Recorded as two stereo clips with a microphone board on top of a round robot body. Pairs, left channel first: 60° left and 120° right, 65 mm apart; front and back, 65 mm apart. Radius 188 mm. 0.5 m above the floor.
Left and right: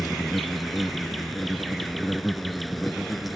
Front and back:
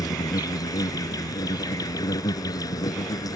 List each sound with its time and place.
0.0 s an insect: 30° right